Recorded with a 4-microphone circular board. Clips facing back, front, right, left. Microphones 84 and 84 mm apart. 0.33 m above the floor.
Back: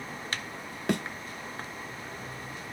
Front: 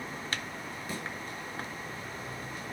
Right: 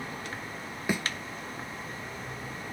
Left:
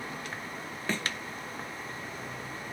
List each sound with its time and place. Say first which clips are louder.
0.9 s a thud: back 12 dB, right 3 dB; 170° right, 0.8 m